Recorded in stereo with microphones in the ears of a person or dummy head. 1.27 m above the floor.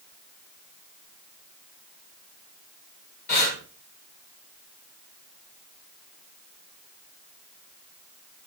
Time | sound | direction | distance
3.3 | breathing | 40° left (ahead or behind) | 0.9 m